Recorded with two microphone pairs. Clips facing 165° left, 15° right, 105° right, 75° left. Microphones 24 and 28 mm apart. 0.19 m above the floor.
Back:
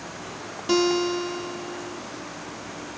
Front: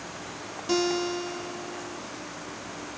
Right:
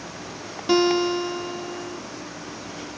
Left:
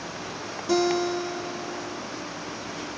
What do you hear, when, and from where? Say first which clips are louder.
0.7 s a guitar: back 5 dB, right 4 dB; 130° right, 1.1 m